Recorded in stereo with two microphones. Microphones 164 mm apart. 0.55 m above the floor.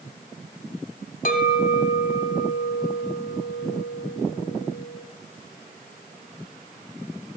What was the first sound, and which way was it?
A clink, 65° left (ahead or behind).